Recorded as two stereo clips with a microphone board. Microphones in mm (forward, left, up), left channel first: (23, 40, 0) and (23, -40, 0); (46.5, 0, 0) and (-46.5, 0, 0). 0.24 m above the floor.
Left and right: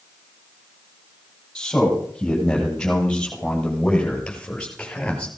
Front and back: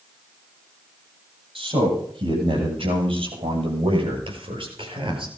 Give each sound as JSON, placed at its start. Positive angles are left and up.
{"t": 1.6, "sound": "a man speaking", "azimuth_deg": 170, "distance_m": 8.5}